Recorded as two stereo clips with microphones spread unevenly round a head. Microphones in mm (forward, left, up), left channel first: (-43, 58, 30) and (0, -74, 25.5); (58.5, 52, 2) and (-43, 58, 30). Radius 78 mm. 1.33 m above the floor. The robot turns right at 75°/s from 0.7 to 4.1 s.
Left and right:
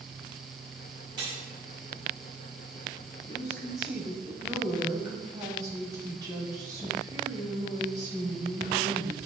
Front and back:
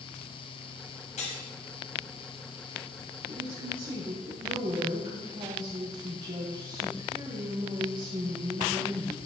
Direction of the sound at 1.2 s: 10° right.